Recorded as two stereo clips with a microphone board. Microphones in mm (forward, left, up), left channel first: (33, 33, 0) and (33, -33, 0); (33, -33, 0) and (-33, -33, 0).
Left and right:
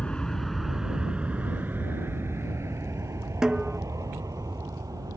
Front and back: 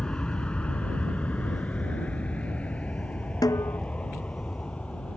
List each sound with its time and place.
0.0 s an aircraft: 50° left; by 5.2 s 70° right
3.4 s a snare drum: 10° right